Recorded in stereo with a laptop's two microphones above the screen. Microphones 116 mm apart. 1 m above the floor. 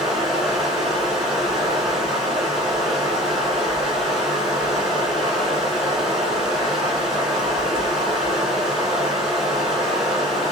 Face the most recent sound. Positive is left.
turn(degrees=0)  # may be behind; listen again after turning